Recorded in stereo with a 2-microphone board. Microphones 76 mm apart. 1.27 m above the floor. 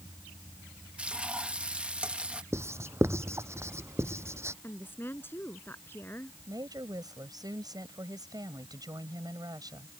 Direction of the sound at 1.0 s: 15° right (ahead or behind).